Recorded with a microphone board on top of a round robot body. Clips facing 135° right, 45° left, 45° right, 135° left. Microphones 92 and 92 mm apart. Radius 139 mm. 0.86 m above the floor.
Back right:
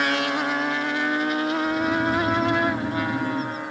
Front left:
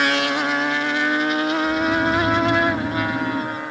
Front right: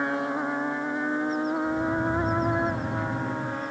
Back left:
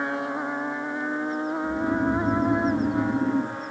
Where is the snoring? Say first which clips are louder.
Front left 3 dB, back left 1 dB; 140° left, 9.5 m.